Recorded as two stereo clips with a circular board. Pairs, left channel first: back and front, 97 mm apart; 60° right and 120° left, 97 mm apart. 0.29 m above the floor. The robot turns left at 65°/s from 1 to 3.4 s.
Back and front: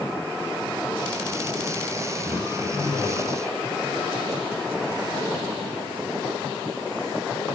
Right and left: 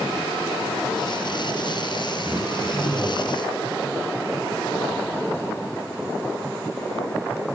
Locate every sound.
2.2 s throat clearing: 80° left, 8 m; by 3.3 s 15° left, 8 m